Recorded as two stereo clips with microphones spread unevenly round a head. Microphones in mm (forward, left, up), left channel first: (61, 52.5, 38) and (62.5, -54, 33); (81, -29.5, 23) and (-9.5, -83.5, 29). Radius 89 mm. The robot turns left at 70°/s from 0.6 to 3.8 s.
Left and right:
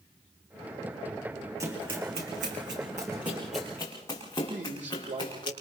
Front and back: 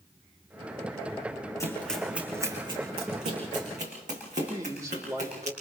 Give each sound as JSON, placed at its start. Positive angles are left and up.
{"t": 1.6, "sound": "running footsteps", "azimuth_deg": -30, "distance_m": 5.0}
{"t": 4.5, "sound": "a man speaking", "azimuth_deg": -90, "distance_m": 4.0}